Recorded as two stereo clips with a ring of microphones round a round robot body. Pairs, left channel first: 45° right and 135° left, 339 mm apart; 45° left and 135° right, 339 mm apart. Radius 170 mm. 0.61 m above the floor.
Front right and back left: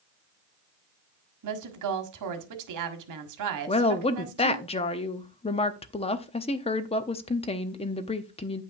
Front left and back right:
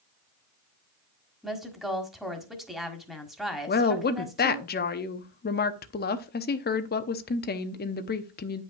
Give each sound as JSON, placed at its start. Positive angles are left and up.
{"t": 1.4, "sound": "a woman speaking", "azimuth_deg": 135, "distance_m": 1.6}
{"t": 3.7, "sound": "a woman speaking", "azimuth_deg": 10, "distance_m": 0.8}